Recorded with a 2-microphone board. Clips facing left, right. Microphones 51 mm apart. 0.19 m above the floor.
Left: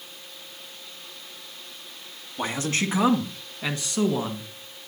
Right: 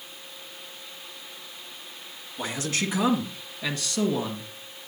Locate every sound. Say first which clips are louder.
2.4 s a man speaking: left 3 dB; 35° left (ahead or behind), 1.7 m; by 4.5 s 15° left (ahead or behind), 2.5 m